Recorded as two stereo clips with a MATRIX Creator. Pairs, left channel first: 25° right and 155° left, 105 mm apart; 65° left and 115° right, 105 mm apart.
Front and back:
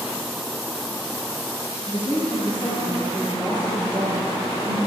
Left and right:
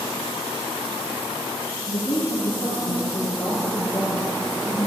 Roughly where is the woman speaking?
Ahead left.